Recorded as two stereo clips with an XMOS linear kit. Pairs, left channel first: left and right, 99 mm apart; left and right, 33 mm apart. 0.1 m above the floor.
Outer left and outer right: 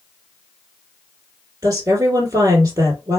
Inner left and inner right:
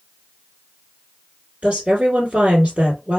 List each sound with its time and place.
1.6 s a woman speaking: 35° right (ahead or behind), 3 m